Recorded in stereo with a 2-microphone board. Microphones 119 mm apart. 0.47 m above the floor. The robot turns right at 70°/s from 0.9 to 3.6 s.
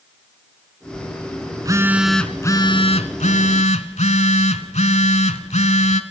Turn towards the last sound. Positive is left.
turn(degrees=105)